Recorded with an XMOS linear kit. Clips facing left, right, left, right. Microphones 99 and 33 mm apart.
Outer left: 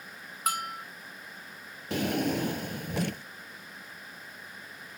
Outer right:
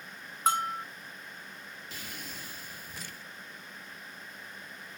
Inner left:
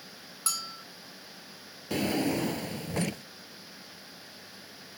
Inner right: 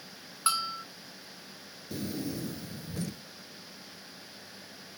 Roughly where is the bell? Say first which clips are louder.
Outer right 4 dB, inner right 7 dB; right.